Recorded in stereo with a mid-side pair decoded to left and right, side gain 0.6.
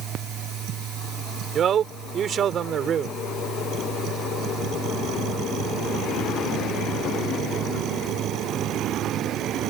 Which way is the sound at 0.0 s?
55° right.